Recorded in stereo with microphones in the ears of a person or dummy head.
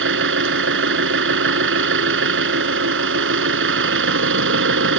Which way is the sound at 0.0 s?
75° right (ahead or behind).